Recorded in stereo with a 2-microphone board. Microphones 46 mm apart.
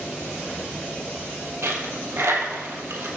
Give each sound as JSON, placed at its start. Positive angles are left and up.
{"t": 1.6, "sound": "a dropped coin", "side_deg": -65, "distance_m": 1.5}